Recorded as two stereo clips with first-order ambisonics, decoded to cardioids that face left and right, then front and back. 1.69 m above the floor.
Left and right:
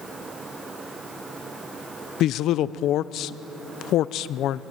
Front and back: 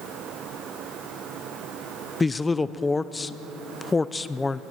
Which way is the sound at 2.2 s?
75° left.